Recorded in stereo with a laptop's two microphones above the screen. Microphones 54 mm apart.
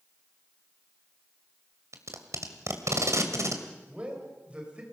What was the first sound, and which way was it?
Tape being pulled, 65° right (ahead or behind).